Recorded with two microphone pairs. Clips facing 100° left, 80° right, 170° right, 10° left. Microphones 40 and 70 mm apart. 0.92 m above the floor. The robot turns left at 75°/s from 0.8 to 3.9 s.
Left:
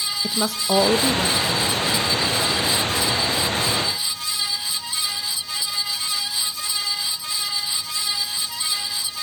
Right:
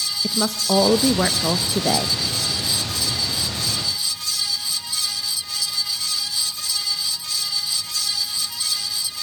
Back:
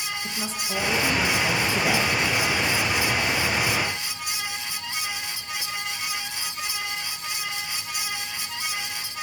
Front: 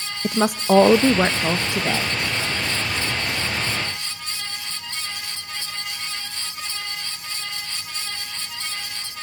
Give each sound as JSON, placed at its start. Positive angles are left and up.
{"t": 0.2, "sound": "a woman speaking", "azimuth_deg": 15, "distance_m": 0.6}